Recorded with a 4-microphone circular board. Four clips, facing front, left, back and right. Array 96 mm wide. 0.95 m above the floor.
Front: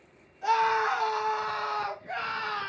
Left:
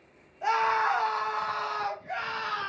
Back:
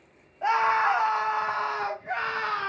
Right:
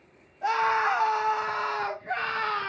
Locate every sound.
0.4 s a scream: 175° left, 1.8 m; by 2.7 s 145° right, 2 m